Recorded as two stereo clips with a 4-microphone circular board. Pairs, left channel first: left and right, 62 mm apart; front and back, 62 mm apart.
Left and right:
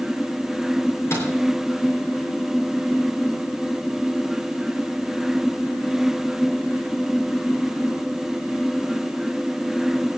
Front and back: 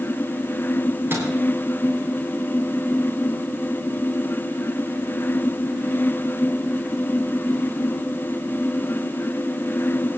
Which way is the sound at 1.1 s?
130° left.